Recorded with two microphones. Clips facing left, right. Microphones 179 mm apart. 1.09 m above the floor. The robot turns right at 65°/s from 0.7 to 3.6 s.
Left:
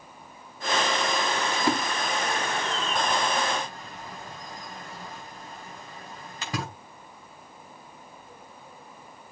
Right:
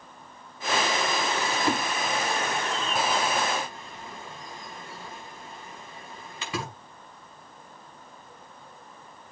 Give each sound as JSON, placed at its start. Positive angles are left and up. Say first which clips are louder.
{"t": 1.5, "sound": "a splash", "louder": "left 1 dB", "side_deg": 5, "distance_m": 5.0}